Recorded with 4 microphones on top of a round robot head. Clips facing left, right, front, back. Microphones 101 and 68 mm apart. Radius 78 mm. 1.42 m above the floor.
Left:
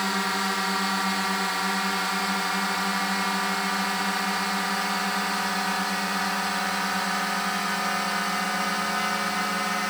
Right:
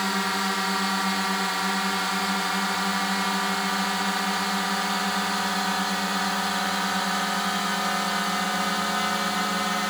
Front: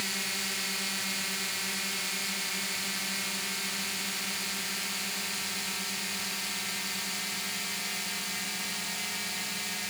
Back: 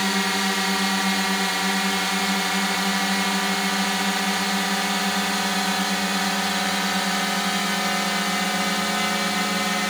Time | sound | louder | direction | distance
0.0 | a drone | even, back 14 dB | straight behind | ?